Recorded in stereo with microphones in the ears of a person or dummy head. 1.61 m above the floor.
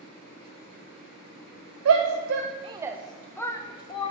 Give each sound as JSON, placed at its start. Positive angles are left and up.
{"t": 1.9, "sound": "a shout", "side_deg": -85, "distance_m": 0.7}